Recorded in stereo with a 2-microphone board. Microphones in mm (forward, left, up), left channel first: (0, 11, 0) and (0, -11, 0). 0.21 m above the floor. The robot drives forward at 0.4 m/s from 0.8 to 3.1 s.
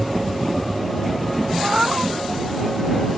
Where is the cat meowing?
20° right (ahead or behind).